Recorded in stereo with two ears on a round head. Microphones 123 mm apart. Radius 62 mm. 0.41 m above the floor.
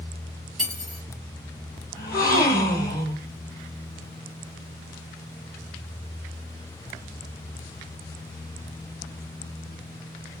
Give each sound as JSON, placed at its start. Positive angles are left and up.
{"t": 0.6, "sound": "cutlery clinking", "side_deg": 0, "distance_m": 3.5}
{"t": 2.0, "sound": "a gasp", "side_deg": 25, "distance_m": 3.5}